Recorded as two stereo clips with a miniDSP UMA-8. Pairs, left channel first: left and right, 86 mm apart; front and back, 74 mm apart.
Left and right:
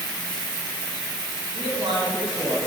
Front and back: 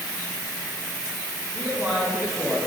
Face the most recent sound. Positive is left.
turn(degrees=-95)